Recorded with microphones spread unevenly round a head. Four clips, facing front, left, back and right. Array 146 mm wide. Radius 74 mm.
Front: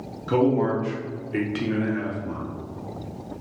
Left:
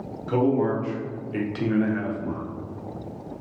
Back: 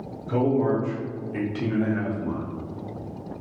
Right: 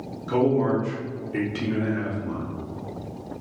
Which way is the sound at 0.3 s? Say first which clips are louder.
Right 1 dB, front 2 dB; straight ahead.